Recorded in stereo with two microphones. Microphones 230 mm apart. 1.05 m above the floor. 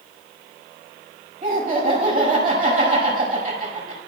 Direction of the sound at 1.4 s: 40° right (ahead or behind).